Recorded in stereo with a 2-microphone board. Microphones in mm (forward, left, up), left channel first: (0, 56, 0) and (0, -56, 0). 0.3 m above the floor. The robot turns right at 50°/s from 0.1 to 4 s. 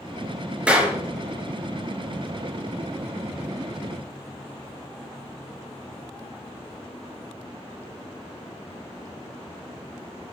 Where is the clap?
10° right (ahead or behind), 3.5 m; by 0.9 s 25° right (ahead or behind), 3.5 m.